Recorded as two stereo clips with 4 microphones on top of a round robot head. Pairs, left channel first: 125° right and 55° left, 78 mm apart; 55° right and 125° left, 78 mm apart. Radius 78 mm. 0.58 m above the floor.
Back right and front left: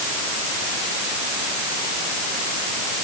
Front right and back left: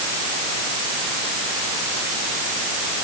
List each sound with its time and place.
Only background noise.